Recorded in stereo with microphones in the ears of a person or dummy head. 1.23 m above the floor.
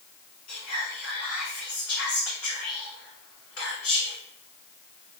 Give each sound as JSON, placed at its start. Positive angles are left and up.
{"t": 0.5, "sound": "whispering", "side_deg": 75, "distance_m": 1.7}